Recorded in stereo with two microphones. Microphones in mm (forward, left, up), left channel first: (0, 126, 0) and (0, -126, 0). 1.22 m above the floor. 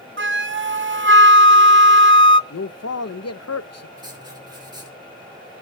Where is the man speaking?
80° left, 0.7 m.